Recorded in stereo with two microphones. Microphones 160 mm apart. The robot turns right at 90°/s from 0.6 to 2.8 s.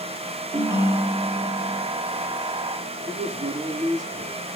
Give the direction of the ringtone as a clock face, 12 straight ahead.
1 o'clock.